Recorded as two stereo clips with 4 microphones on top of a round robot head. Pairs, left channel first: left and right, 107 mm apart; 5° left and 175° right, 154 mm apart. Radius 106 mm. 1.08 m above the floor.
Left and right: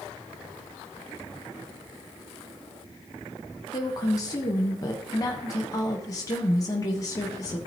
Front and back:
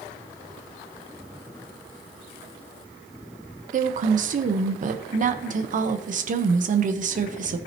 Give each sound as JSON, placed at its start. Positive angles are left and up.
{"t": 3.7, "sound": "a woman speaking", "azimuth_deg": 150, "distance_m": 1.0}